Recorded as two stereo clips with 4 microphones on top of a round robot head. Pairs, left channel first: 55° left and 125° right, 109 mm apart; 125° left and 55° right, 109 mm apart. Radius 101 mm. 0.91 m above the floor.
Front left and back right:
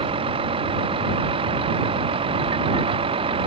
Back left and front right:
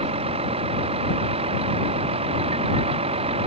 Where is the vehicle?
90° right.